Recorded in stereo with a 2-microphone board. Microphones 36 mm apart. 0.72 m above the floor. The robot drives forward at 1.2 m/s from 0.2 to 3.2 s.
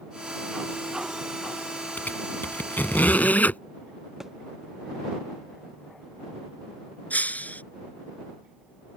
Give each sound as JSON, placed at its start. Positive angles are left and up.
{"t": 2.0, "sound": "a squeak", "side_deg": 60}
{"t": 4.2, "sound": "a thud", "side_deg": -10}
{"t": 7.1, "sound": "breaking glass", "side_deg": 55}